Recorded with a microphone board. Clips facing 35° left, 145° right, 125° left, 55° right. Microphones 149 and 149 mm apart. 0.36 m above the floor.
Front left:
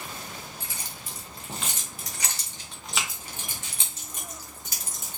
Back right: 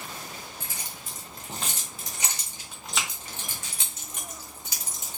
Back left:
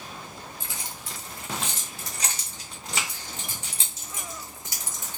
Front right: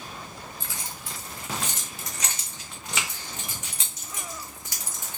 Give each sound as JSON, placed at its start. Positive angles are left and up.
{"t": 0.6, "sound": "keys jangling", "azimuth_deg": -170, "distance_m": 1.6}